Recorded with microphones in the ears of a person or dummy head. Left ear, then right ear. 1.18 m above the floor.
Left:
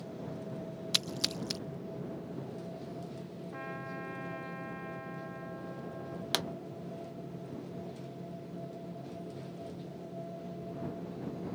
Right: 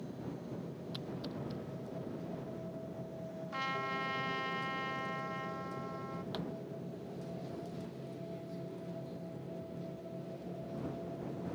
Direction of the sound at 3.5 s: 75° right (ahead or behind).